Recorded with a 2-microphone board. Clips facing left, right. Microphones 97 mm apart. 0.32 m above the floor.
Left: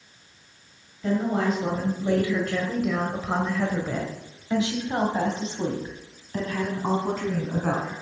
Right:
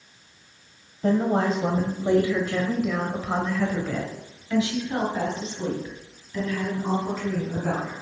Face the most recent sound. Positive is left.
turn(degrees=55)  # may be behind; listen again after turning